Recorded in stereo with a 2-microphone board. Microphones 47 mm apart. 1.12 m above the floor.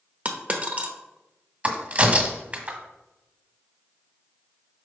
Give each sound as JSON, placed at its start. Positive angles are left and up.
{"t": 0.2, "sound": "a dropped coin", "side_deg": -35, "distance_m": 0.9}
{"t": 1.6, "sound": "a crack", "side_deg": -30, "distance_m": 1.5}